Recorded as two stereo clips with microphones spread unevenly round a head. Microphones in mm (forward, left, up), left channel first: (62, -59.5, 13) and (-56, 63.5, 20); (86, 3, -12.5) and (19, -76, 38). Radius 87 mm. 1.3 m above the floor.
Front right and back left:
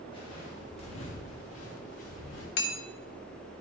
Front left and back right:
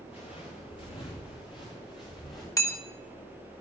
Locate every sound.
0.1 s footsteps: 15° left, 7 m; by 2.5 s 5° right, 7.5 m
2.6 s hammering: 10° right, 3 m